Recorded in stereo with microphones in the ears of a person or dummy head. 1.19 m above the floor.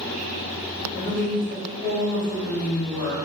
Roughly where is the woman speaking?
Centre.